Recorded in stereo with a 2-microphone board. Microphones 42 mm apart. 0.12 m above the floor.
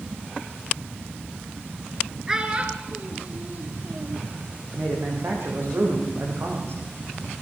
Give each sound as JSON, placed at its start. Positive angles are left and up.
{"t": 2.3, "sound": "a child speaking", "side_deg": -15, "distance_m": 1.5}
{"t": 4.7, "sound": "a man speaking", "side_deg": -55, "distance_m": 7.0}